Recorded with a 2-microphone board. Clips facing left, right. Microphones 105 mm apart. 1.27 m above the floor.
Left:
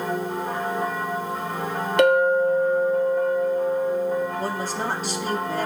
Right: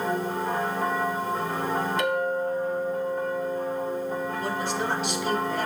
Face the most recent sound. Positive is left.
turn(degrees=40)  # may be behind; listen again after turning